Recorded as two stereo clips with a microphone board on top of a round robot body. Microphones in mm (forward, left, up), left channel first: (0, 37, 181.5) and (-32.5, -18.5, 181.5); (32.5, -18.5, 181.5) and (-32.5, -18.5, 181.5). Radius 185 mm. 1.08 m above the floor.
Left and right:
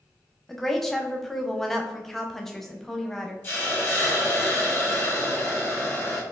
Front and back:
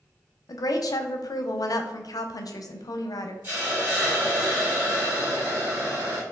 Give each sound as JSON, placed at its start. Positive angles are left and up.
{"t": 0.5, "sound": "a woman speaking", "azimuth_deg": -25, "distance_m": 0.6}
{"t": 3.4, "sound": "a hiss", "azimuth_deg": 120, "distance_m": 1.9}